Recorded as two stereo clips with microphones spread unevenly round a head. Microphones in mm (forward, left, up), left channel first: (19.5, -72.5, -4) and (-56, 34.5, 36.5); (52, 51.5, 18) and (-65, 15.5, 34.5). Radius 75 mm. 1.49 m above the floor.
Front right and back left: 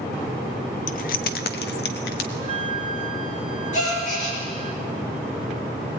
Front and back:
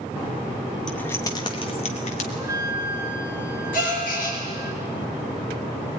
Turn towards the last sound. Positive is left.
turn(degrees=-10)